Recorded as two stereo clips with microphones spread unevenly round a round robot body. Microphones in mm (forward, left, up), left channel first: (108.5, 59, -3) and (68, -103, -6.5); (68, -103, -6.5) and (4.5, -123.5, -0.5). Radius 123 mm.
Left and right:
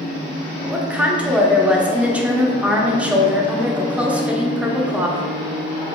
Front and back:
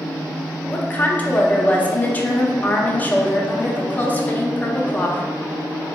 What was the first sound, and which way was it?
A woman speaking, 25° right.